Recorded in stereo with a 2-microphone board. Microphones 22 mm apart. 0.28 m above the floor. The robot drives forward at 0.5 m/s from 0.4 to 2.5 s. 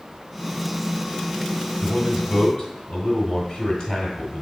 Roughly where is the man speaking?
Left.